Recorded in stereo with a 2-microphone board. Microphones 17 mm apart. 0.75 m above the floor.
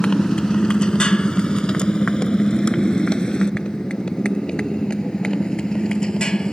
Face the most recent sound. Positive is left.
turn(degrees=50)  # may be behind; listen again after turning